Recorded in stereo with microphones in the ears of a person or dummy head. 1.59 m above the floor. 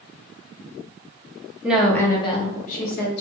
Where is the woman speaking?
10° right (ahead or behind), 0.7 m; by 3.2 s 60° left (ahead or behind), 1.1 m.